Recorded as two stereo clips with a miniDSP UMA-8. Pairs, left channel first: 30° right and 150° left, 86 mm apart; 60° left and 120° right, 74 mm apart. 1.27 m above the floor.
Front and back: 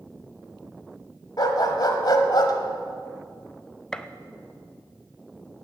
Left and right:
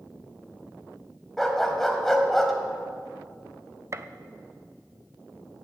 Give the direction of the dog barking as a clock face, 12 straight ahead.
1 o'clock.